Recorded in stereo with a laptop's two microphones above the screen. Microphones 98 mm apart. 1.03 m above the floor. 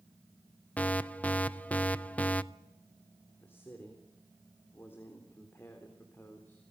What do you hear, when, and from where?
0.8 s an alarm: 15° left (ahead or behind), 0.5 m
3.4 s a man speaking: 20° left (ahead or behind), 3.5 m